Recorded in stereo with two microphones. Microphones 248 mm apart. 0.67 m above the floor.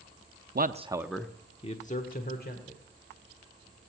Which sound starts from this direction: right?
A man speaking, at 0.6 s.